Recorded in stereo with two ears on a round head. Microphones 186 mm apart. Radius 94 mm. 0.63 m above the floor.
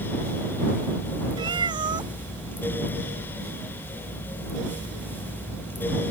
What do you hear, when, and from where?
1.4 s a cat meowing: 25° right (ahead or behind)